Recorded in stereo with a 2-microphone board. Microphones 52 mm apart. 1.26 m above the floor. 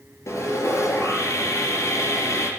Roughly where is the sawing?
Left.